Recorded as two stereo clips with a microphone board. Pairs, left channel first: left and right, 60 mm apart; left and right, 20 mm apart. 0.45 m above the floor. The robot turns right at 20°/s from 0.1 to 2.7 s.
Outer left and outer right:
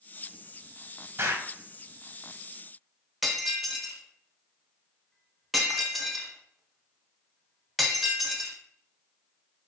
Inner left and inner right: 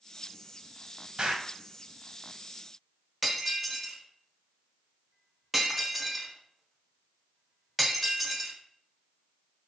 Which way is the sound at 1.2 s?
40° right (ahead or behind).